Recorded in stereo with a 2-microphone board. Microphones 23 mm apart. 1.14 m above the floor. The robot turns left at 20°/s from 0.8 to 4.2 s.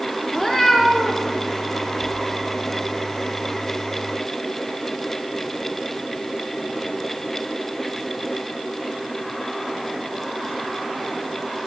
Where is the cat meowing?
15° left (ahead or behind), 0.8 m; by 1.2 s 20° left (ahead or behind), 0.8 m.